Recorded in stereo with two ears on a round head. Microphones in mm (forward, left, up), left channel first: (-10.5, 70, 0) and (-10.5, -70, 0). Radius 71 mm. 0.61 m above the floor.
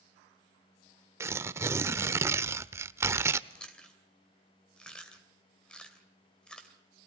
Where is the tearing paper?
15° right (ahead or behind), 0.6 m.